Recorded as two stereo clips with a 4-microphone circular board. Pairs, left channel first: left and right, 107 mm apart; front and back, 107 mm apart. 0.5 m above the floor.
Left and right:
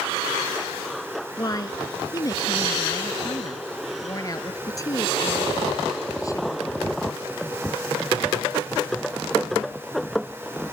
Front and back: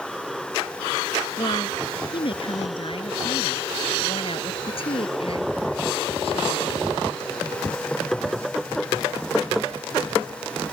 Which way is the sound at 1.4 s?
35° left.